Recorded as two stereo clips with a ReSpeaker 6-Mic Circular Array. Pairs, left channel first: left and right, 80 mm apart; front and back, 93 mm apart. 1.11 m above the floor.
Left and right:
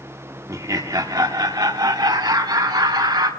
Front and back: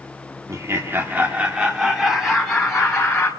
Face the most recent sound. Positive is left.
turn(degrees=-80)